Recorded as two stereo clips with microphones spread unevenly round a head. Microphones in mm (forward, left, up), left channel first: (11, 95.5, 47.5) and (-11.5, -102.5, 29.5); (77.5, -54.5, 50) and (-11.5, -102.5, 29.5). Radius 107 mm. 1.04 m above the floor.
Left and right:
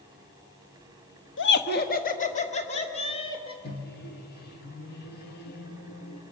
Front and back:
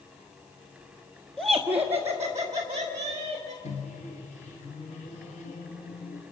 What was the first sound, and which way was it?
Laughter, 115° left.